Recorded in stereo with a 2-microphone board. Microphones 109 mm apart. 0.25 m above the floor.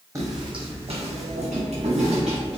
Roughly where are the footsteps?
Right.